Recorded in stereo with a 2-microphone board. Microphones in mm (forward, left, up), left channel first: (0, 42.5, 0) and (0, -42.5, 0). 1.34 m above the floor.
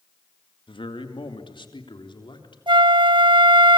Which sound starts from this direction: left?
A man speaking, at 0.7 s.